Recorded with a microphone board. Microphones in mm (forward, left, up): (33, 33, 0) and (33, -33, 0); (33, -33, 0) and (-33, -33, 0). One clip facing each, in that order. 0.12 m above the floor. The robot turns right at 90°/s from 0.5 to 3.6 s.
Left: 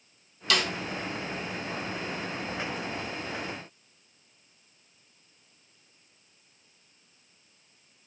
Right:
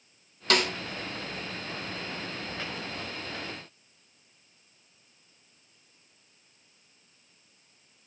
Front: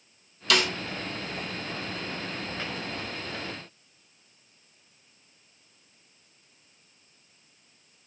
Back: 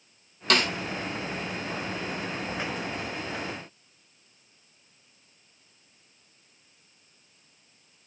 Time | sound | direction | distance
0.5 | a snare drum | 135° right | 1.1 m